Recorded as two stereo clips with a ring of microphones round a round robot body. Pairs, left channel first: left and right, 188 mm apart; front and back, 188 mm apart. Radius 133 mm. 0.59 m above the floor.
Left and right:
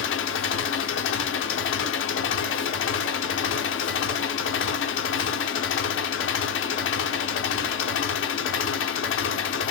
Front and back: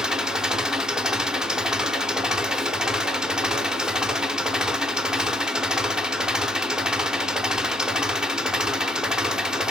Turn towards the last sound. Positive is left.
turn(degrees=95)